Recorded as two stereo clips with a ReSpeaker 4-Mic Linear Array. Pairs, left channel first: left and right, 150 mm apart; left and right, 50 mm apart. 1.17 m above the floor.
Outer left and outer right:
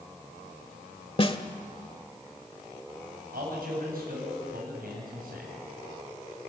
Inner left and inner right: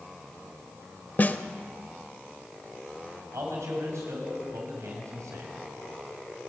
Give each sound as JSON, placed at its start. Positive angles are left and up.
{"t": 1.2, "sound": "a snare drum", "side_deg": 40, "distance_m": 1.3}
{"t": 3.3, "sound": "a man speaking", "side_deg": -80, "distance_m": 9.0}